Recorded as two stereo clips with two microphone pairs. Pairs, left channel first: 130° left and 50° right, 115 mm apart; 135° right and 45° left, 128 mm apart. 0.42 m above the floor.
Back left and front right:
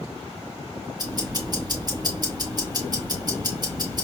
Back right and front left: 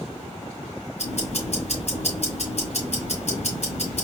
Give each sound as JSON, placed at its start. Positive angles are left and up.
{"t": 1.0, "sound": "ticking", "azimuth_deg": -100, "distance_m": 2.5}